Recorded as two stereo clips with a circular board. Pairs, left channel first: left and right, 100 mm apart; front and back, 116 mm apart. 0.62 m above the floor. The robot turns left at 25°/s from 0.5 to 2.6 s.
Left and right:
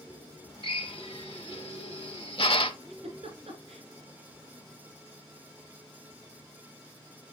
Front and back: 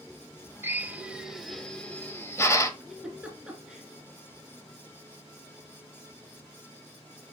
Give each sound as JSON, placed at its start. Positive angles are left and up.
{"t": 0.6, "sound": "a drill", "azimuth_deg": 110, "distance_m": 1.0}
{"t": 2.8, "sound": "a giggle", "azimuth_deg": -95, "distance_m": 2.5}